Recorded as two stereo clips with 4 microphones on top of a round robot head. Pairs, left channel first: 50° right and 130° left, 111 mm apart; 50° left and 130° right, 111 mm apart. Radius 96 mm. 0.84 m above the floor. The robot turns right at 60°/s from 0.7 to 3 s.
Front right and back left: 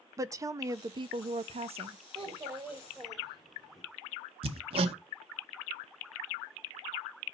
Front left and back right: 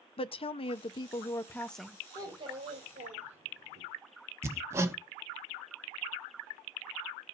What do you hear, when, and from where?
0.2 s a woman speaking: 75° left, 0.7 m; by 2.0 s 150° left, 0.7 m
2.1 s a child speaking: 170° left, 2.5 m; by 3.8 s 140° right, 2.5 m
4.4 s hammering: 165° left, 0.9 m